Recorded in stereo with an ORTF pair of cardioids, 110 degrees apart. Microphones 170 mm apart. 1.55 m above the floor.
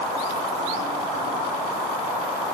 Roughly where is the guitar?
No guitar in this recording.